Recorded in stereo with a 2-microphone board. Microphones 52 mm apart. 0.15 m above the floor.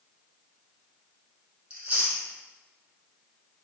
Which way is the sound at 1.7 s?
25° right (ahead or behind).